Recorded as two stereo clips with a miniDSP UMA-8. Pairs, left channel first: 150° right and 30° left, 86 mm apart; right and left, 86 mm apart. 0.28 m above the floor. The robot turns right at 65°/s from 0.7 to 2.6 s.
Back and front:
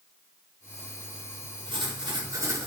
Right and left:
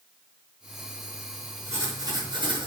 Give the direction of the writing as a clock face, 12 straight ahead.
11 o'clock.